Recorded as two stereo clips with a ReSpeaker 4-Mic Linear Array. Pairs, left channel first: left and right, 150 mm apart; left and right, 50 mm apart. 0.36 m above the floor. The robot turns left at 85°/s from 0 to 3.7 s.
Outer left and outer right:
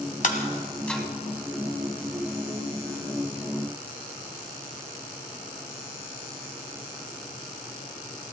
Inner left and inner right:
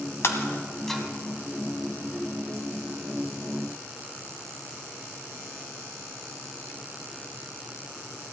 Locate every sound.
0.2 s breaking glass: 55° left (ahead or behind), 1.6 m; by 1.0 s 5° right (ahead or behind), 1.6 m